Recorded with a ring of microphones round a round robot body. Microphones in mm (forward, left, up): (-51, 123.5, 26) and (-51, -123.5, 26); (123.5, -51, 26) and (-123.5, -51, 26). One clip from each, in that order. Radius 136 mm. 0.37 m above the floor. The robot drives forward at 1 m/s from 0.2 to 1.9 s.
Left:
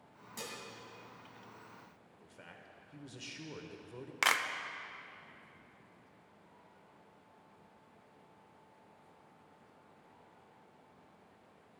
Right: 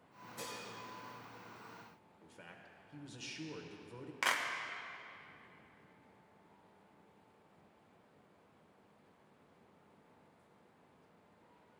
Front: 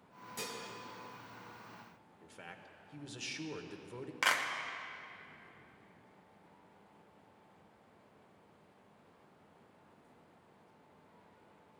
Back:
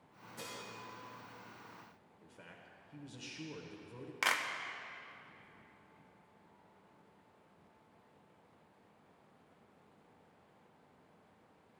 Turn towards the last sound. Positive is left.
turn(degrees=105)